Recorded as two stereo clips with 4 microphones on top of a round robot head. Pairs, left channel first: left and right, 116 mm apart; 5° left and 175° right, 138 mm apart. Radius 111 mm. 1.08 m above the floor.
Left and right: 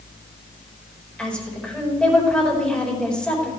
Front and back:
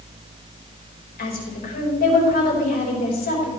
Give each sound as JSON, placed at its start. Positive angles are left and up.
{"t": 1.2, "sound": "a woman speaking", "azimuth_deg": 10, "distance_m": 5.0}